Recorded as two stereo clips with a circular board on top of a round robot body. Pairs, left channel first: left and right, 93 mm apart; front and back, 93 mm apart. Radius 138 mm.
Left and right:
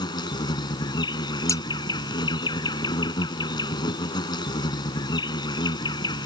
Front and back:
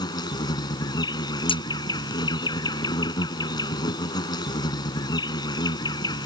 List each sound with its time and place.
0.0 s an insect: 45° left
1.5 s scissors: 30° left